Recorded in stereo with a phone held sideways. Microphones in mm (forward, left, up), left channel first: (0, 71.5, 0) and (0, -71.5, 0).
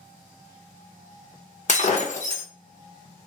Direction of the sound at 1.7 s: 55° left (ahead or behind).